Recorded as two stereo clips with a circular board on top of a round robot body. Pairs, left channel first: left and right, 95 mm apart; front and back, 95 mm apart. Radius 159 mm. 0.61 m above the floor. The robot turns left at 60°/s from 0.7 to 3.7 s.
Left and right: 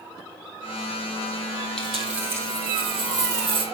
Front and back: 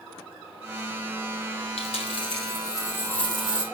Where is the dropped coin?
10° left, 3 m; by 3.6 s 105° right, 3 m.